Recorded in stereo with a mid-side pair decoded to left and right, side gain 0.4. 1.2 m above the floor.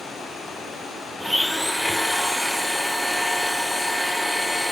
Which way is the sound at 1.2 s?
5° right.